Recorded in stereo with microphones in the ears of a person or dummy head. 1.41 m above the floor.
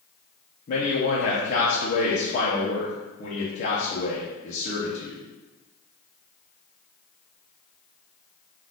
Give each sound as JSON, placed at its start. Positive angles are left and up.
{"t": 0.7, "sound": "a man speaking", "side_deg": 40, "distance_m": 0.8}